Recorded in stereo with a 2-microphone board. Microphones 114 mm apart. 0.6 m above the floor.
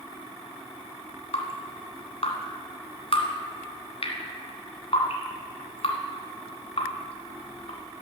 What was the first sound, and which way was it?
Dripping, 60° left (ahead or behind).